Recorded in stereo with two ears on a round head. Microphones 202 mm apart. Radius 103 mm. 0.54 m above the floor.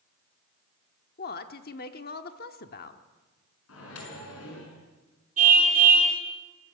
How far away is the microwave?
About 6 m.